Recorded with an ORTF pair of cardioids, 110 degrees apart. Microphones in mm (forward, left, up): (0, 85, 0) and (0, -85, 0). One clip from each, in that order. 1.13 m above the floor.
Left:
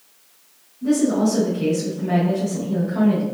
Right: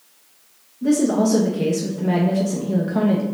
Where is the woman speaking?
40° right, 0.8 m.